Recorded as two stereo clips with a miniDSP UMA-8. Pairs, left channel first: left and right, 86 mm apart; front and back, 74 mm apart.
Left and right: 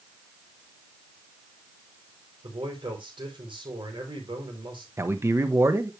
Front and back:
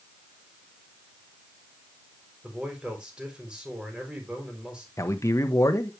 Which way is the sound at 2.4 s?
100° right.